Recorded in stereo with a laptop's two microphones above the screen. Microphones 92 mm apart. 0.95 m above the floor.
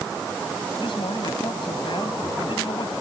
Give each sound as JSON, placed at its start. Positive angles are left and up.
{"t": 0.8, "sound": "a man speaking", "side_deg": 65}